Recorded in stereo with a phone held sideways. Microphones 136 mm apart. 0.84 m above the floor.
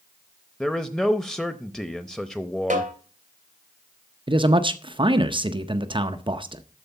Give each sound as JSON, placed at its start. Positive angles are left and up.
{"t": 0.6, "sound": "a man speaking", "side_deg": 5, "distance_m": 0.6}
{"t": 2.7, "sound": "a snare drum", "side_deg": -65, "distance_m": 2.5}
{"t": 4.3, "sound": "a man speaking", "side_deg": -40, "distance_m": 0.6}